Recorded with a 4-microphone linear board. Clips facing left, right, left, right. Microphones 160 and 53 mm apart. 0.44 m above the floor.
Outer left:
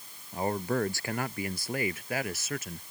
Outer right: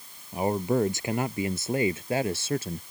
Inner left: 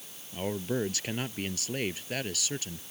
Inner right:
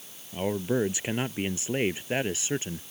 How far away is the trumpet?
No trumpet in this recording.